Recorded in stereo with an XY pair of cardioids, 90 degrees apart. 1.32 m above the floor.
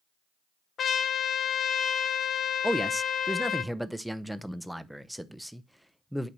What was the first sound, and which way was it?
A trumpet, 65° left.